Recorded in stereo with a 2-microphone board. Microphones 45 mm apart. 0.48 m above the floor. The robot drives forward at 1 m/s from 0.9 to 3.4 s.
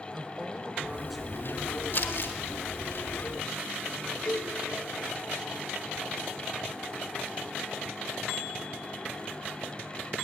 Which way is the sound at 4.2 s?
35° left (ahead or behind).